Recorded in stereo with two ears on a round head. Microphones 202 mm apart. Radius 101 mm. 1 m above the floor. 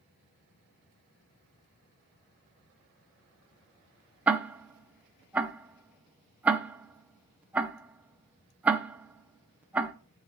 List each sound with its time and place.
4.3 s ticking: 5° right (ahead or behind), 0.6 m